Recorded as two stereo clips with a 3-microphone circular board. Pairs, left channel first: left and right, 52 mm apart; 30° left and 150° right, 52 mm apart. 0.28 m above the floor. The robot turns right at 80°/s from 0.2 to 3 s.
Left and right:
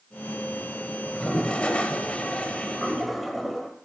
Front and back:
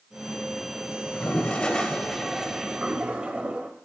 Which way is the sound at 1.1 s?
20° left.